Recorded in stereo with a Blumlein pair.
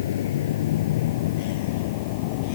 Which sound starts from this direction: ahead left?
A vehicle, at 0.0 s.